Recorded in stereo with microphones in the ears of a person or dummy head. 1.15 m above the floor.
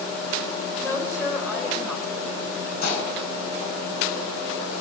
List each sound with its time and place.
0.8 s a woman speaking: 20° left (ahead or behind), 4 m
2.8 s dishes clattering: 60° left (ahead or behind), 8 m